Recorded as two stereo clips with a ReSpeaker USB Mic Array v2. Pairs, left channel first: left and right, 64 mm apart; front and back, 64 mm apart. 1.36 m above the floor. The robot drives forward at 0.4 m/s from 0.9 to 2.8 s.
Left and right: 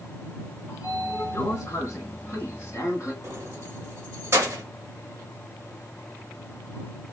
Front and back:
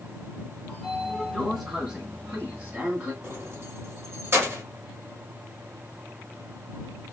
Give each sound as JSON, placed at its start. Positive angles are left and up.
{"t": 0.7, "sound": "a sliding door", "azimuth_deg": 90, "distance_m": 1.7}
{"t": 3.2, "sound": "keys jangling", "azimuth_deg": -135, "distance_m": 1.0}